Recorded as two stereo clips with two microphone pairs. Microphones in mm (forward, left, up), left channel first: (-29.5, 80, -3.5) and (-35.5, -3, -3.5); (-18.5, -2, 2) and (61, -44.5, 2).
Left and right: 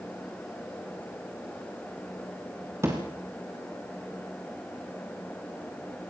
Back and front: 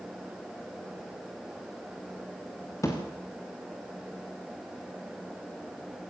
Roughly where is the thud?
Behind right.